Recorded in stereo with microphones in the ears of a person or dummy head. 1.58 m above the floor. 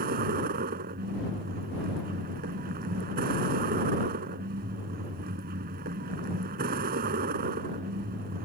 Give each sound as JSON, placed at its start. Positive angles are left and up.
{"t": 0.0, "sound": "a vehicle", "side_deg": -45}